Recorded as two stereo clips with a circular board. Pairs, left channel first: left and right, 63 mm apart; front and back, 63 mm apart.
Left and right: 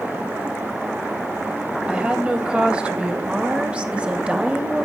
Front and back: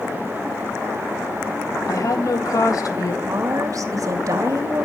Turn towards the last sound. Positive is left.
turn(degrees=-160)